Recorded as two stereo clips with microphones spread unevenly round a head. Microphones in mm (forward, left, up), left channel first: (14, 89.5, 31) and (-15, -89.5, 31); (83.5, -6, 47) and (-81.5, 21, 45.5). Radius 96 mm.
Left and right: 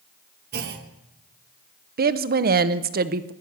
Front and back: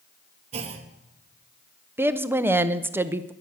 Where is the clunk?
135° right, 0.9 m.